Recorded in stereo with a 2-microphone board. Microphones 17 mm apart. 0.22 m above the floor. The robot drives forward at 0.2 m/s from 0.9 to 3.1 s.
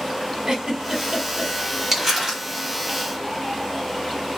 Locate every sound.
0.5 s a giggle: 45° right (ahead or behind), 1.0 m
1.9 s crumpling: 15° right (ahead or behind), 1.5 m